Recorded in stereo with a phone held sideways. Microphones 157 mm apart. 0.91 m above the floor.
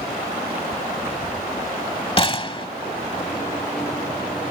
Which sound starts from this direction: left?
A gunshot, at 2.2 s.